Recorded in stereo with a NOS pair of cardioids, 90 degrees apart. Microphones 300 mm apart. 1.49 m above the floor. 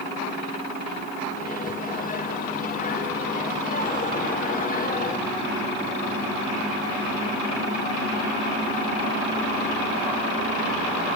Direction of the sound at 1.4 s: 25° left.